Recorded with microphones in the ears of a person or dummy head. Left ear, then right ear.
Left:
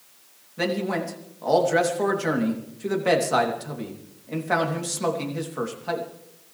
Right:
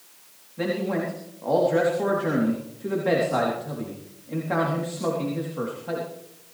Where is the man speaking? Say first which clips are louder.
Left 1 dB; 80° left, 3 m.